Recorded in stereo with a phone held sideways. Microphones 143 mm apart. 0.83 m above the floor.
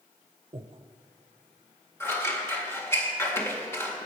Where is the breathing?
35° right (ahead or behind), 0.7 m.